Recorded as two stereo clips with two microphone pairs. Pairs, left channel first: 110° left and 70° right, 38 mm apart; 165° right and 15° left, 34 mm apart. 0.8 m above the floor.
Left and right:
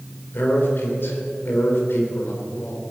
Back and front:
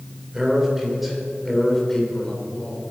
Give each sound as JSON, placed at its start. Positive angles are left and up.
{"t": 0.3, "sound": "a man speaking", "azimuth_deg": 90, "distance_m": 3.5}